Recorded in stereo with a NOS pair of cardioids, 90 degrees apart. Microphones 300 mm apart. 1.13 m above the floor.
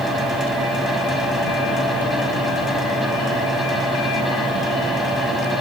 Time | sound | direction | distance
0.0 | a fan | straight ahead | 4 m